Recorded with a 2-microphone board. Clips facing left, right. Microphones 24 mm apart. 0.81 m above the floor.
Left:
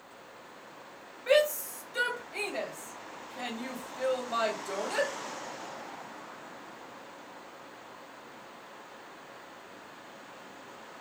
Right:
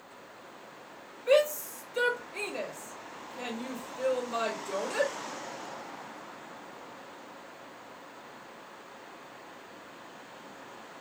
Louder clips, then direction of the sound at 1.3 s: Right 1 dB; 50° left (ahead or behind).